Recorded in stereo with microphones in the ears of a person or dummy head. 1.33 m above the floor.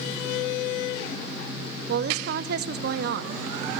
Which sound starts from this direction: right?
A woman speaking, at 1.9 s.